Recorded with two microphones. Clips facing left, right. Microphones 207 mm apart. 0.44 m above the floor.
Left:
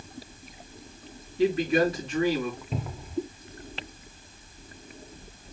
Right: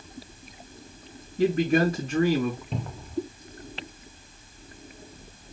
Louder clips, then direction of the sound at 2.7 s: Even; 5° left (ahead or behind).